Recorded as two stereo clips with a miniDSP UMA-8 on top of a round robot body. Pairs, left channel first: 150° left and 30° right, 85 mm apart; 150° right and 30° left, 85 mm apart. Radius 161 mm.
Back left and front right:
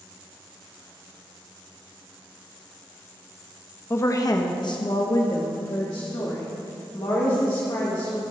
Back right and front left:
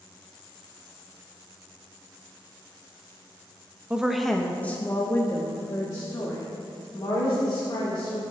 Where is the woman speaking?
100° left, 0.8 m; by 8.2 s 175° left, 3 m.